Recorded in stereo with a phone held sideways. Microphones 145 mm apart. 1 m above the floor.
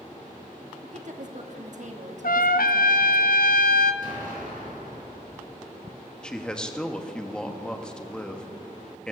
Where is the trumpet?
80° left, 0.6 m.